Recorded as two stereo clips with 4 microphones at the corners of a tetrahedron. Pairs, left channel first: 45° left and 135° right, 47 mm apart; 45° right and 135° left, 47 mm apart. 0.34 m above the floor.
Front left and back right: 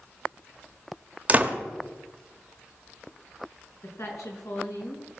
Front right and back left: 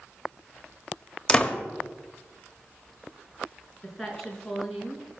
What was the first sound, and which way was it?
A door slam, 105° right.